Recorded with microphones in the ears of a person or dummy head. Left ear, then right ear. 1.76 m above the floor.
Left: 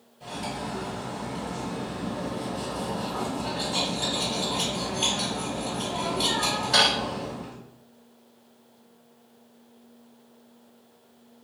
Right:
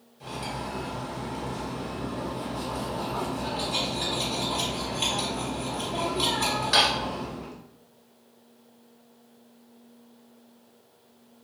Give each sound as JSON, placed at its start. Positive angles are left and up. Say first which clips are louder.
{"t": 0.2, "sound": "cutlery clinking", "louder": "left 1 dB", "side_deg": -55, "distance_m": 1.3}